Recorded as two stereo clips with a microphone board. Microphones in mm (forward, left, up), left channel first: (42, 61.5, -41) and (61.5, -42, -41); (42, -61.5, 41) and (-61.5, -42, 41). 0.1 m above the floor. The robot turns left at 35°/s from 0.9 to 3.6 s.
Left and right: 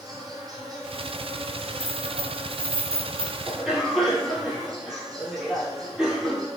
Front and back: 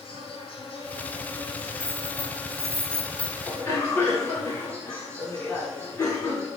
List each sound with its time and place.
0.0 s an insect: 30° right, 0.9 m; by 6.6 s 125° right, 0.9 m
1.8 s keys jangling: 110° left, 1.3 m; by 3.4 s 55° left, 1.3 m
3.5 s a cough: straight ahead, 1.1 m; by 6.5 s 5° right, 1.1 m